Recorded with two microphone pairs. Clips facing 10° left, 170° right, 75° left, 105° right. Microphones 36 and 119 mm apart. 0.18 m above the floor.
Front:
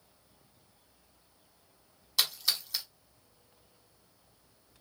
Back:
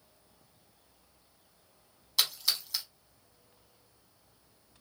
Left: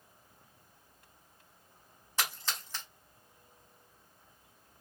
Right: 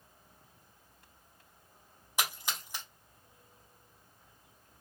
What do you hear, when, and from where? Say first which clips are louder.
2.2 s a splash: even, right 1 dB; 60° right, 0.7 m